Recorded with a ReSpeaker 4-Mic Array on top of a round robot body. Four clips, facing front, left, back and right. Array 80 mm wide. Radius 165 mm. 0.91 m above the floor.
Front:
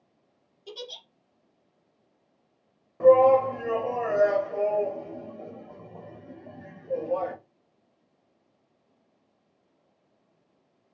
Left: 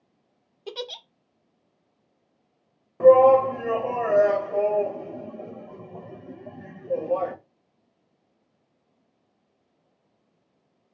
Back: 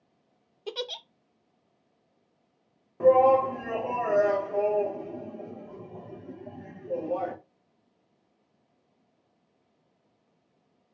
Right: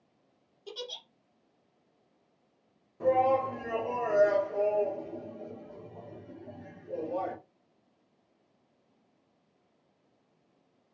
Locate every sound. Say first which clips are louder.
0.7 s a giggle: left 7 dB, back 6 dB; 135° left, 0.6 m
3.0 s a shout: left 12 dB, front 2 dB; 90° left, 1.5 m